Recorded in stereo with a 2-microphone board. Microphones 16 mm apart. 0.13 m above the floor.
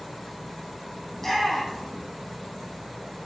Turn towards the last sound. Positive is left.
turn(degrees=20)  # may be behind; listen again after turning